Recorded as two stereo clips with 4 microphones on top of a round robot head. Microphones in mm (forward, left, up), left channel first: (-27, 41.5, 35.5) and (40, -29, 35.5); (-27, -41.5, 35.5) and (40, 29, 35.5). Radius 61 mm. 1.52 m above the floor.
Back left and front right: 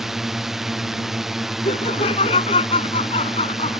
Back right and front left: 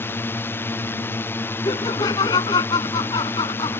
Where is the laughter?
170° left.